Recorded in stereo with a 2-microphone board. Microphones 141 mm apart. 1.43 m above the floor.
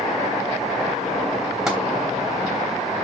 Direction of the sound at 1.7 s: 5° right (ahead or behind).